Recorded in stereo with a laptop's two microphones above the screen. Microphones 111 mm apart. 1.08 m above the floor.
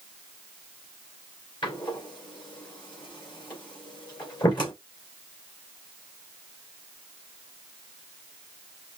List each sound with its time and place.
1.6 s a door slam: 45° left (ahead or behind), 2.5 m